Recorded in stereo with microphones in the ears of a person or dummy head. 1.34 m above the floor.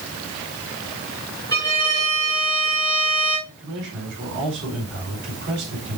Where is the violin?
15° left (ahead or behind), 4 m.